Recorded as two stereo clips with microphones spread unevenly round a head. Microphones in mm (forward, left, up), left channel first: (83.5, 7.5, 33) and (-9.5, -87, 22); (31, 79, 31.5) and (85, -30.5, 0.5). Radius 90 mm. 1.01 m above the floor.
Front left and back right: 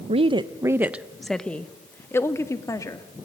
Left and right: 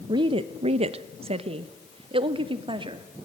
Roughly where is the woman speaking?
Right.